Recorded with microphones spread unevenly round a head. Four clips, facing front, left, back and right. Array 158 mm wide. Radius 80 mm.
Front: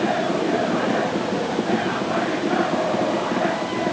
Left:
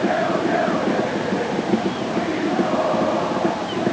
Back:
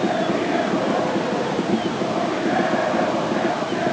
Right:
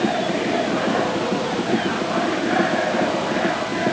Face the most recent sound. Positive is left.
No sound to turn to.